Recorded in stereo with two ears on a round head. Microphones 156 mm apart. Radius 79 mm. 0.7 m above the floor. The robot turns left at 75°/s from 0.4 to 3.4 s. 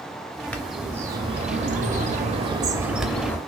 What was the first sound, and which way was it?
A bird, 15° left.